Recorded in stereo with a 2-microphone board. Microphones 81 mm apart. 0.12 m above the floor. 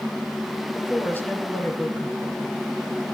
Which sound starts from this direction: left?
A woman speaking, at 0.7 s.